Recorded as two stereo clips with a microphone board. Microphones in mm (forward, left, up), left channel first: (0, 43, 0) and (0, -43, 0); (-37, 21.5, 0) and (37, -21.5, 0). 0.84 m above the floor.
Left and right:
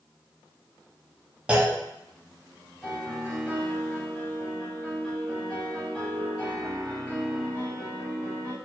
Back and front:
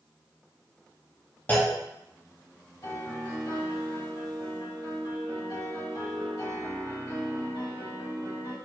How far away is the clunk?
About 0.9 m.